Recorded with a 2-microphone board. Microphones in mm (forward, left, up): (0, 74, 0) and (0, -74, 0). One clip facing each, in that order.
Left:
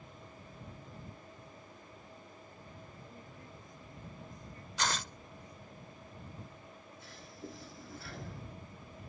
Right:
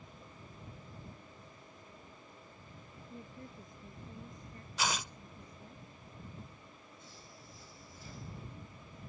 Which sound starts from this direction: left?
A toilet flushing, at 7.0 s.